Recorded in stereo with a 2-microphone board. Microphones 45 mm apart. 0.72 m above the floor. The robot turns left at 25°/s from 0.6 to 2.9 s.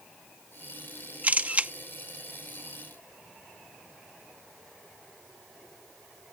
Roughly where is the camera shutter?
Right.